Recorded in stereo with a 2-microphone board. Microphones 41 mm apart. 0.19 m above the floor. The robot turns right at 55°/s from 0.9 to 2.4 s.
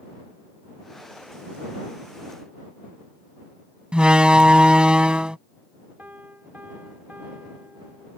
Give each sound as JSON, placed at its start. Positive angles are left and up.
{"t": 3.9, "sound": "a door slam", "side_deg": -25}
{"t": 6.0, "sound": "a piano", "side_deg": -45}